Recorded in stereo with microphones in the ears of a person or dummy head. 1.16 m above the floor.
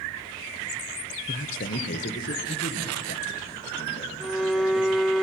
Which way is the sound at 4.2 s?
Centre (ahead or behind).